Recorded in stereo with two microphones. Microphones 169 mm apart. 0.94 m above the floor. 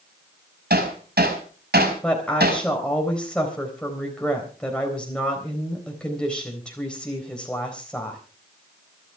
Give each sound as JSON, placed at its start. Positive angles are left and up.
{"t": 0.7, "sound": "hammering", "side_deg": -80, "distance_m": 5.0}
{"t": 2.0, "sound": "a woman speaking", "side_deg": 5, "distance_m": 4.0}